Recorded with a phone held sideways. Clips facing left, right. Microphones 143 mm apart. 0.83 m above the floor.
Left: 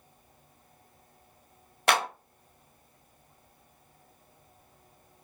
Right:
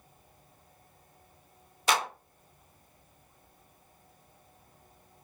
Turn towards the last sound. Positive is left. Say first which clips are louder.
# left 2 dB
turn(degrees=65)  # may be behind; listen again after turning